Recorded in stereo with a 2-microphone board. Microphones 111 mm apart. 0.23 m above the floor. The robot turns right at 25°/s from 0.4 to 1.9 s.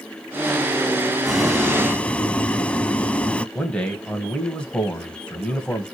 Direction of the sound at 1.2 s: Centre (ahead or behind).